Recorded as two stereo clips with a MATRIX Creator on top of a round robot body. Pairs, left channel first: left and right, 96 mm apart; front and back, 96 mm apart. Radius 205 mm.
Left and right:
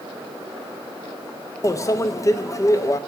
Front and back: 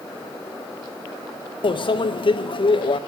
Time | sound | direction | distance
1.6 | a microwave | 30° left | 0.7 m